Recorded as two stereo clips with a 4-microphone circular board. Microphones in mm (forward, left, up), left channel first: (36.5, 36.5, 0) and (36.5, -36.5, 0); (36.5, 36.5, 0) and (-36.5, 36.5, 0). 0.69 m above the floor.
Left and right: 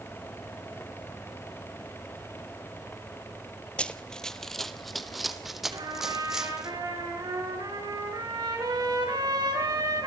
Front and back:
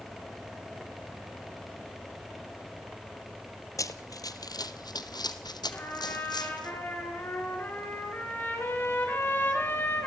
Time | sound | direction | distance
3.8 | running footsteps | 20° left | 1.0 m
5.7 | a trumpet | 65° right | 5.5 m